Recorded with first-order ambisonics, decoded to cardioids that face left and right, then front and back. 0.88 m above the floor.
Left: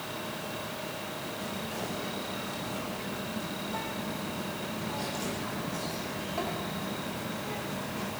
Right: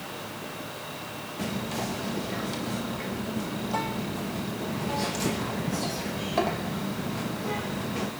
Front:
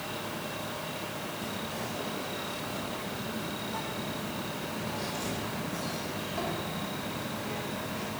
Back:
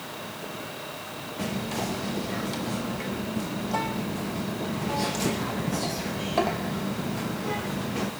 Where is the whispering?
140° right, 0.6 m.